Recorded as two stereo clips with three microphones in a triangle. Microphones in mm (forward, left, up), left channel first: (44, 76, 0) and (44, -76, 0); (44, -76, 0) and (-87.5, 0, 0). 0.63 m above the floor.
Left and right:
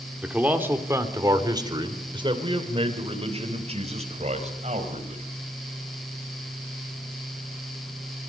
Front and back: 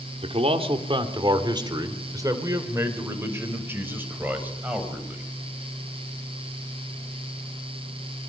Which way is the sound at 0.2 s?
170° right.